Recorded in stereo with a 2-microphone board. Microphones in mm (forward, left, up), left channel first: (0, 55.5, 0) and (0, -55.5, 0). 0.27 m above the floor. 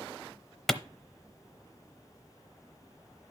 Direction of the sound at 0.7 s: 5° left (ahead or behind).